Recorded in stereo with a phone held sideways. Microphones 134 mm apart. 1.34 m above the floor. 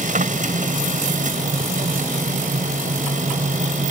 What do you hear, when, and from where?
0.0 s a machine running: 75° right (ahead or behind)